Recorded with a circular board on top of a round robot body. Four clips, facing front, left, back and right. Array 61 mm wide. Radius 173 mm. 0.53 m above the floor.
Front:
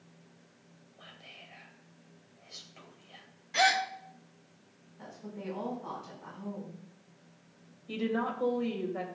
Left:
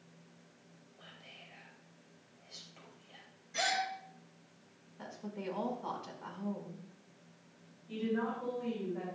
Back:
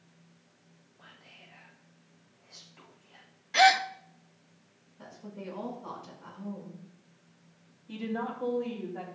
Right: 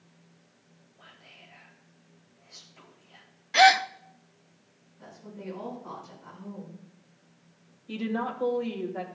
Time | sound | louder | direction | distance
1.0 | whispering | right 2 dB, front 3 dB | 10° left | 4.5 m
3.5 | a gasp | right 16 dB, back 5 dB | 115° right | 0.6 m
5.0 | a woman speaking | even, front 1 dB | 80° left | 4.5 m
7.9 | a woman speaking | right 4 dB, front 3 dB | 40° right | 3 m